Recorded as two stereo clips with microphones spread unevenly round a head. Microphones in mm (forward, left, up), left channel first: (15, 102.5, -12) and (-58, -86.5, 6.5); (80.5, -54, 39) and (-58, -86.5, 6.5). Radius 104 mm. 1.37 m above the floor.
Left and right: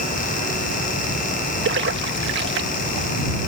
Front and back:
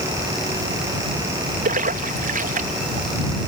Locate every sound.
1.6 s a splash: 145° right